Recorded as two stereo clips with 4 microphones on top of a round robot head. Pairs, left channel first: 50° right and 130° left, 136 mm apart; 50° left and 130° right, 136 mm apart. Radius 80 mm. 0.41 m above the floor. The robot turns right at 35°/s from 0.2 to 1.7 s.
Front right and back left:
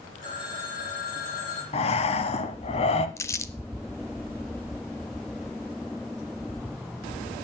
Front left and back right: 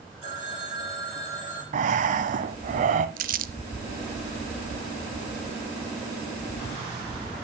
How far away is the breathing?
About 0.9 m.